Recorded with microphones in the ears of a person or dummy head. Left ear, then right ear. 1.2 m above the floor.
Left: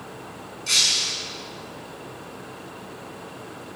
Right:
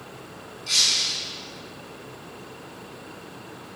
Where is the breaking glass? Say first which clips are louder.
Left 1 dB; 25° left (ahead or behind), 8 m.